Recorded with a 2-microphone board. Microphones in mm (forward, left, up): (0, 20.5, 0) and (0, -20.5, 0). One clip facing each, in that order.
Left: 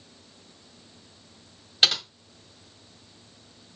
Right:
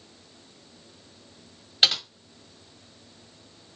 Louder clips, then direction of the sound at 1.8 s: Even; centre (ahead or behind).